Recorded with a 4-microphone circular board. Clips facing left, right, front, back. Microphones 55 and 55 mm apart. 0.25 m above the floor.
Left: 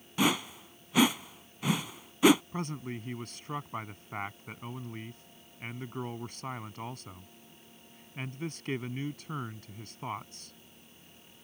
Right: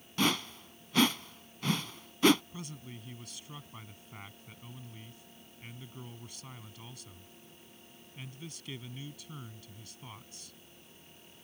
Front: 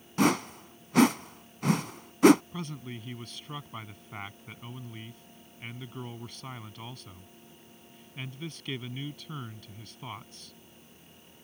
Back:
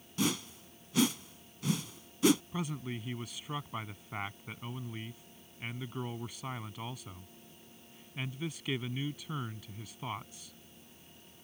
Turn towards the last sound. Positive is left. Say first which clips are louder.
# left 9 dB, back 1 dB
turn(degrees=105)